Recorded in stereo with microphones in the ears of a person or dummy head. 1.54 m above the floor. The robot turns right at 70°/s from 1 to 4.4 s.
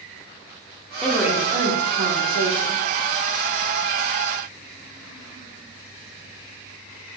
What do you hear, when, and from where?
1.0 s a woman speaking: 175° left, 1.3 m; by 2.8 s 60° right, 1.3 m